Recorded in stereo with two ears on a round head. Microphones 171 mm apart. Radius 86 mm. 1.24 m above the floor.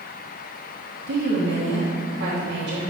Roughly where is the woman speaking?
Right.